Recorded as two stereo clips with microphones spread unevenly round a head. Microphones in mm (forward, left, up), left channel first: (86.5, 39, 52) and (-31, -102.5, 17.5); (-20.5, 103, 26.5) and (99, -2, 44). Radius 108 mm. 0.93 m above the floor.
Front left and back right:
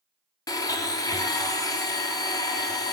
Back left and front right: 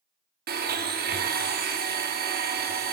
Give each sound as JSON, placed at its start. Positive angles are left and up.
{"t": 0.5, "sound": "a blender", "azimuth_deg": -20, "distance_m": 1.0}